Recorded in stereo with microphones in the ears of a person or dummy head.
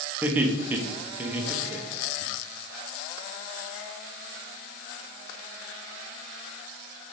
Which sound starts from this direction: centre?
Laughter, at 0.2 s.